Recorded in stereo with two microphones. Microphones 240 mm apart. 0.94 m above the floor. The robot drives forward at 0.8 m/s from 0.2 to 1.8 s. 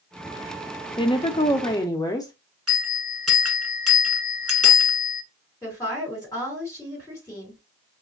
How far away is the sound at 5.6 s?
About 3 m.